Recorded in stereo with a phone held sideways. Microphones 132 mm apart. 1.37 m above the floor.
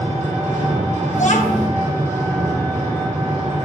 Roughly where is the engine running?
Right.